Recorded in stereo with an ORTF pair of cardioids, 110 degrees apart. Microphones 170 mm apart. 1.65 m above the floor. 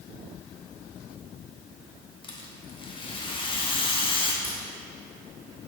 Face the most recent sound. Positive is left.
turn(degrees=15)